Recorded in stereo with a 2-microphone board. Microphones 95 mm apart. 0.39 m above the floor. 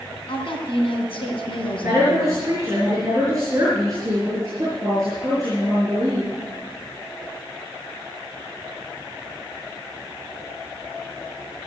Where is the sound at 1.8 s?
35° right (ahead or behind), 5.5 m.